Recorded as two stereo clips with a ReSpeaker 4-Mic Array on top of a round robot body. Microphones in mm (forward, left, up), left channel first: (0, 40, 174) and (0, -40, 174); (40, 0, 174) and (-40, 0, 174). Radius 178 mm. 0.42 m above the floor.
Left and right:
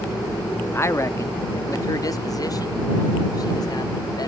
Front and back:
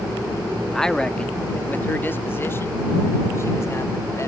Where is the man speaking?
85° left; by 4.3 s 55° left.